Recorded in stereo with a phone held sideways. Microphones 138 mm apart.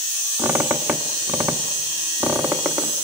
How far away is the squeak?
About 1.3 m.